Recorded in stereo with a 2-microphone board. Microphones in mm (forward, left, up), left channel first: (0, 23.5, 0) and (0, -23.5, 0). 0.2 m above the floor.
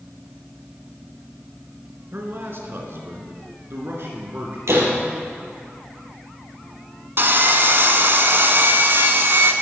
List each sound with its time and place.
2.1 s a man speaking: 50° right (ahead or behind), 2.5 m; by 4.6 s 55° right (ahead or behind), 3 m
4.7 s a door slam: 70° right (ahead or behind), 4 m
7.2 s sawing: 50° right (ahead or behind), 1.2 m